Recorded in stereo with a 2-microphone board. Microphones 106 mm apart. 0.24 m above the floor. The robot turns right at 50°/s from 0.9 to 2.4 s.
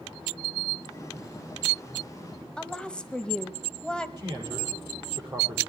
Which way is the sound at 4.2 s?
35° right (ahead or behind).